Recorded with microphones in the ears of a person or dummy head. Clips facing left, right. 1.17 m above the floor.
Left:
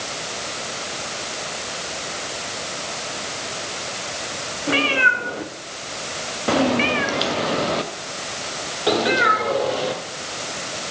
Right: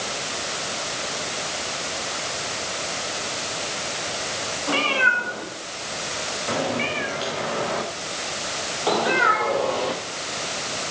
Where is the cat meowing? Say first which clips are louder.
Left 3 dB; 25° left (ahead or behind), 1.7 m; by 10.9 s 15° left (ahead or behind), 2.5 m.